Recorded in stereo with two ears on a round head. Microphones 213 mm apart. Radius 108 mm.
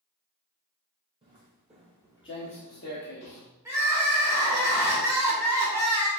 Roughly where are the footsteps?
Right.